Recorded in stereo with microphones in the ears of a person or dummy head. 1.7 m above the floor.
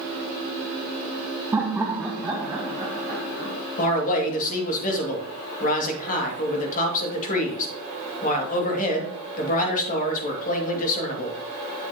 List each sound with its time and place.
1.5 s laughter: 15° right (ahead or behind), 0.5 m; by 3.5 s 10° right (ahead or behind), 2.5 m
3.8 s a man speaking: 45° left (ahead or behind), 2 m